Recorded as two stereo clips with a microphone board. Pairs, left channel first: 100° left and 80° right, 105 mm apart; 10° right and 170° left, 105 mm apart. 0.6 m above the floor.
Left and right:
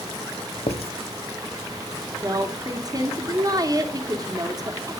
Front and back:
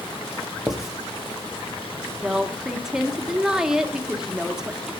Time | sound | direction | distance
0.7 | writing | 85° left | 1.0 m
2.2 | a woman speaking | 105° right | 1.4 m